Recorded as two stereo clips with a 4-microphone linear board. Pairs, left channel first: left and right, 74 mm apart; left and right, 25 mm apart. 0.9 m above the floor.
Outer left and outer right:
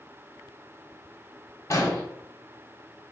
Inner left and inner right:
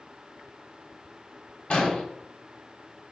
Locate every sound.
1.7 s an explosion: 45° left (ahead or behind), 1.2 m